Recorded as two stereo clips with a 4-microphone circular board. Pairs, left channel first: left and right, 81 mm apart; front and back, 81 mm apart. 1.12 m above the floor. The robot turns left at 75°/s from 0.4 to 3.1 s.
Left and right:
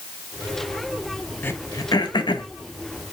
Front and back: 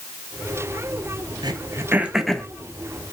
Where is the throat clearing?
150° left, 0.6 m; by 2.5 s 70° left, 0.6 m.